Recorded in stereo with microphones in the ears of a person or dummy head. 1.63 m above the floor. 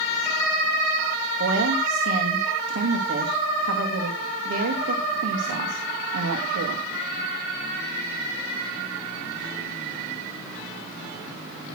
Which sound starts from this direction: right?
A woman speaking, at 1.4 s.